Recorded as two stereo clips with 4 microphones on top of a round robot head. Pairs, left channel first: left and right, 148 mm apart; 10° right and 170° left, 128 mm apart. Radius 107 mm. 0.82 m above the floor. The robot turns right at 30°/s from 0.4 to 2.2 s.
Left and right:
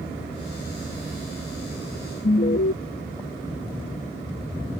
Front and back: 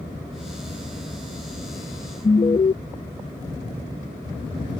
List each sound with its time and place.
2.2 s an alarm: 50° left